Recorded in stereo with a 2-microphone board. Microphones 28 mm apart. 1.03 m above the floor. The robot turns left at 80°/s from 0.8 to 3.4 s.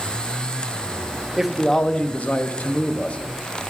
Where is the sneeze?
I don't hear a sneeze.